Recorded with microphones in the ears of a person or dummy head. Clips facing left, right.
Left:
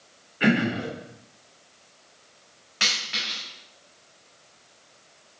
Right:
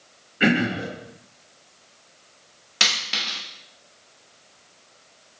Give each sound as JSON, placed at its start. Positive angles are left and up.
{"t": 0.4, "sound": "throat clearing", "side_deg": -20, "distance_m": 2.5}
{"t": 2.8, "sound": "a dropped coin", "side_deg": -50, "distance_m": 1.3}